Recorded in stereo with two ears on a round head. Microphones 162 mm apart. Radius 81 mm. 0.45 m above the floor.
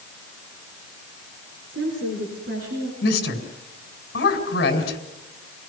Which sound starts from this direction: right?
A woman speaking, at 1.7 s.